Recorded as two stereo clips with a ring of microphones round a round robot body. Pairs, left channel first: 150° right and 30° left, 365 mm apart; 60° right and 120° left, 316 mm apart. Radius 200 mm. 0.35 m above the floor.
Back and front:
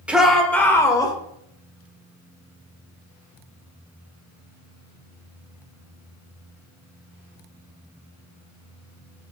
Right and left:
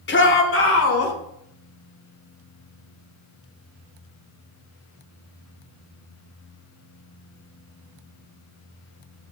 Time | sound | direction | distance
0.1 | a shout | 55° right | 1.4 m